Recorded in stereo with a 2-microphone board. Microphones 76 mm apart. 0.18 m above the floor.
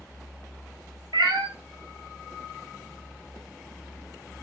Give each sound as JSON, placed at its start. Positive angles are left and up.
{"t": 1.1, "sound": "a cat meowing", "side_deg": -85, "distance_m": 0.6}